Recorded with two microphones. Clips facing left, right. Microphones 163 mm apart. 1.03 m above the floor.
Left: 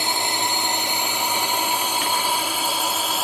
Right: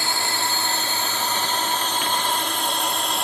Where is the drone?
20° left (ahead or behind); by 3.2 s 5° left (ahead or behind).